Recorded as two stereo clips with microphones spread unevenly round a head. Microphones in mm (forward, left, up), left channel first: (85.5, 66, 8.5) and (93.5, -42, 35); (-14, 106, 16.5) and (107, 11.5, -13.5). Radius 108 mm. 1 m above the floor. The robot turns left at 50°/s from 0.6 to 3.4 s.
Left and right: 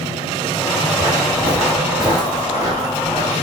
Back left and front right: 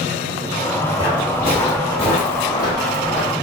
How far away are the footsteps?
About 1.1 m.